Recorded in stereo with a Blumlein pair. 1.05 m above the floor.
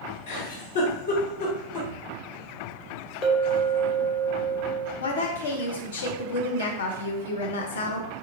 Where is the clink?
30° left, 0.9 m.